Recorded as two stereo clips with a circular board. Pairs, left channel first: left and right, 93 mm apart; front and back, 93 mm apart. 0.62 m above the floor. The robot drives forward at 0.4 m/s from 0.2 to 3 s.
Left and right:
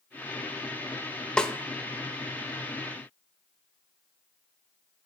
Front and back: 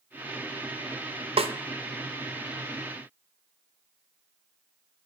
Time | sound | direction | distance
1.4 | a snare drum | 170° left | 0.5 m